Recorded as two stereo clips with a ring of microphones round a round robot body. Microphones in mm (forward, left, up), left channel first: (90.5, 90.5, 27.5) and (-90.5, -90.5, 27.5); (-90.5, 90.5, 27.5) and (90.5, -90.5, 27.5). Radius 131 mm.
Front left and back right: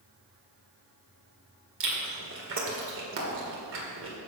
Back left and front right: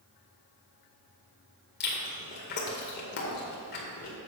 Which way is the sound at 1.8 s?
175° right.